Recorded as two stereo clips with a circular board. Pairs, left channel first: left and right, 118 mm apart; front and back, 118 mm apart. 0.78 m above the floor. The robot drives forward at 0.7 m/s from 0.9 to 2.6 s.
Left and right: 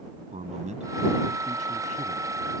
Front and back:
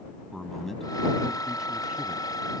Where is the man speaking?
90° right; by 2.4 s 100° right.